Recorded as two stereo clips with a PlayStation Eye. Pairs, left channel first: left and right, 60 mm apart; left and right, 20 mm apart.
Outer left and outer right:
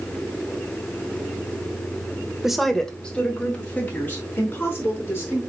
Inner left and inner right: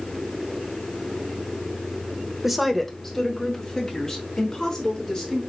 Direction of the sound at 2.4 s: 10° right (ahead or behind).